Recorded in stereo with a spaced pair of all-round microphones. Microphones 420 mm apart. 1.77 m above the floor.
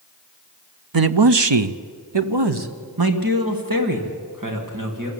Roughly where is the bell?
No bell in this recording.